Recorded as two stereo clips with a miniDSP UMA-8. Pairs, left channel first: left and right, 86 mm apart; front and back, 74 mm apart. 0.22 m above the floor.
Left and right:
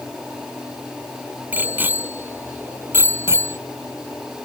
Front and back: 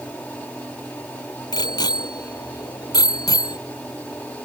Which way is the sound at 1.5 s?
20° right.